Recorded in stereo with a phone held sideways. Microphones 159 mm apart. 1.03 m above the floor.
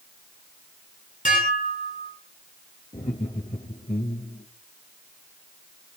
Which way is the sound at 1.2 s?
55° left (ahead or behind).